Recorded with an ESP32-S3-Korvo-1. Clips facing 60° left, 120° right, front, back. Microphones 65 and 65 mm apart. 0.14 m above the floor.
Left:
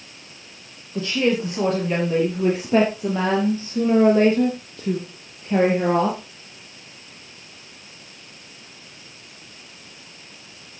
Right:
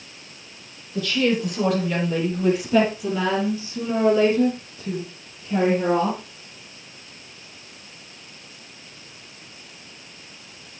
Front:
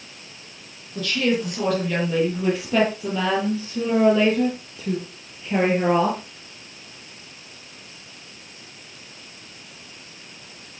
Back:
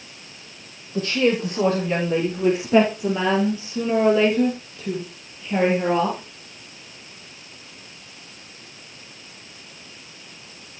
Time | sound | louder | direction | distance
0.9 | a woman speaking | left 1 dB, back 2 dB | 125° left | 5.5 m